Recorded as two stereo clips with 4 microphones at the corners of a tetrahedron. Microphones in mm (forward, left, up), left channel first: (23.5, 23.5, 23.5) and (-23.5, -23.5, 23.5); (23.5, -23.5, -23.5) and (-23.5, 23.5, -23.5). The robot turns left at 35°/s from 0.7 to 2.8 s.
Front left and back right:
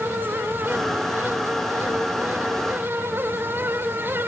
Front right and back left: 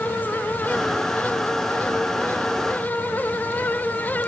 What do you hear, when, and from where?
Only background noise.